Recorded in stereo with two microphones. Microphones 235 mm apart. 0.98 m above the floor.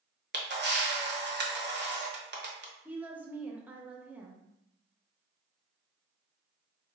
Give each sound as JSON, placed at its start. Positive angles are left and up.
{"t": 0.3, "sound": "a camera shutter", "side_deg": -50, "distance_m": 0.7}
{"t": 2.9, "sound": "a woman speaking", "side_deg": -5, "distance_m": 0.7}